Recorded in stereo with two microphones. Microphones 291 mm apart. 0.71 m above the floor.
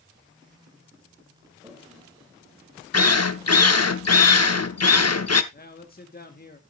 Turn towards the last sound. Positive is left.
turn(degrees=30)  # may be behind; listen again after turning